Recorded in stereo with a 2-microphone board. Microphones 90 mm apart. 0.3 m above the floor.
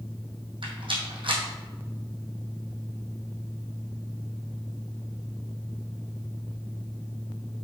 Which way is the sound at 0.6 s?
75° right (ahead or behind).